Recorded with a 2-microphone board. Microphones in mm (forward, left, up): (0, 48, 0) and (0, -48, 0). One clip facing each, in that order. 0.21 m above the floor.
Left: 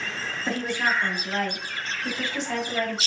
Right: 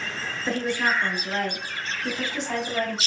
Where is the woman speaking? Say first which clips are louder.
Right 1 dB; 20° left (ahead or behind), 1.5 m; by 3.0 s 30° right (ahead or behind), 1.7 m.